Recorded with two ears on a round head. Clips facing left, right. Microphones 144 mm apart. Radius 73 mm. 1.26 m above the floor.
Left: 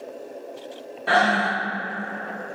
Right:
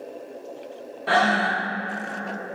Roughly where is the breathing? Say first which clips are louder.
Left 1 dB; centre.